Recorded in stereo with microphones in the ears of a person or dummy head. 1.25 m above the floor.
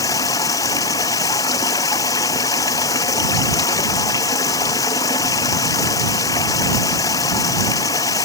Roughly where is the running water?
Left.